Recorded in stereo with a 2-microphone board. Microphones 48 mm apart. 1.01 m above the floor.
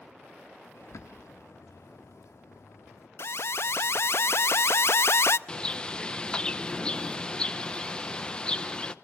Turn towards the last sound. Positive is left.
turn(degrees=20)  # may be behind; listen again after turning